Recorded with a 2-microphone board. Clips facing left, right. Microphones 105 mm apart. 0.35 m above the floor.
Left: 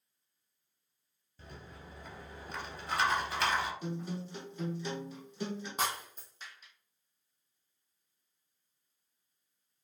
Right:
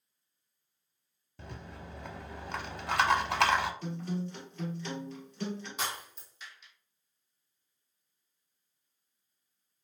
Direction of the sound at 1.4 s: 80° right.